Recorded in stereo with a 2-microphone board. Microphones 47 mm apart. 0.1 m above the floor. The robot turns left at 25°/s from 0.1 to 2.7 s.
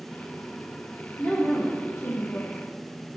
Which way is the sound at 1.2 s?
135° left.